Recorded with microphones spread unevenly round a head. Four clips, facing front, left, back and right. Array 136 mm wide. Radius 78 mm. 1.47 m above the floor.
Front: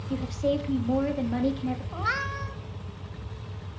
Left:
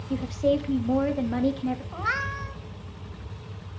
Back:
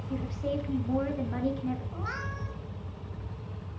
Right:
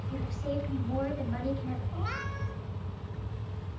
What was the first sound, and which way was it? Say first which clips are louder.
A woman speaking: left 11 dB, front 6 dB; 65° left.